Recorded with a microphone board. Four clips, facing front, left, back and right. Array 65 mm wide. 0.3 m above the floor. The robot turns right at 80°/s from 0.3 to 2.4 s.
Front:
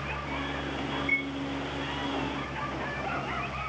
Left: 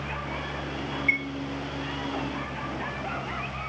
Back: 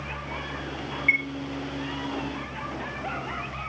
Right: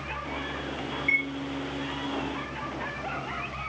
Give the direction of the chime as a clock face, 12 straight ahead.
6 o'clock.